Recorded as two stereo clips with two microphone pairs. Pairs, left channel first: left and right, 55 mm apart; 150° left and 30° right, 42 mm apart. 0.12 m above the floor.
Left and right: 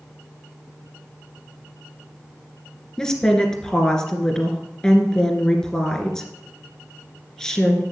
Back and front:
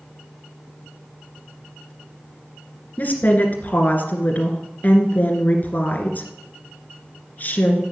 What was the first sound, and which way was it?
A woman speaking, 160° left.